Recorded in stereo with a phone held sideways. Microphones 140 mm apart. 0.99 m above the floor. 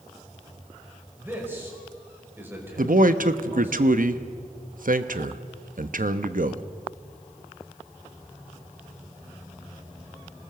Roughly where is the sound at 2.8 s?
Right.